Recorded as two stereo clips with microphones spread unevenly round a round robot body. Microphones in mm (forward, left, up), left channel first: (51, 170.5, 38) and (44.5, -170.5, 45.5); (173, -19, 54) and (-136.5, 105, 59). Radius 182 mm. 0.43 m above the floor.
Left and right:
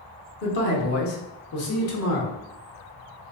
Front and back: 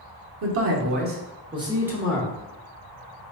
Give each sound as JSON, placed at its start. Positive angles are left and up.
{"t": 0.4, "sound": "a man speaking", "azimuth_deg": 135, "distance_m": 1.0}